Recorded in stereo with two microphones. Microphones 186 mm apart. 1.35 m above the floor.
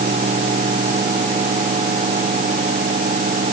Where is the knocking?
No knocking in this recording.